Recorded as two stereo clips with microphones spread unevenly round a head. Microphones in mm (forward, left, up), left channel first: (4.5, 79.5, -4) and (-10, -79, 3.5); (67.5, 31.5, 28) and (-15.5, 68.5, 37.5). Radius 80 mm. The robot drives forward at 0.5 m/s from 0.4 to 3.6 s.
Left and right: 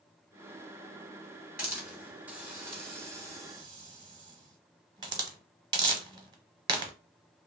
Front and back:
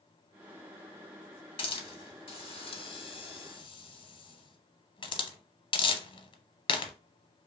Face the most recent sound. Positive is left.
turn(degrees=-30)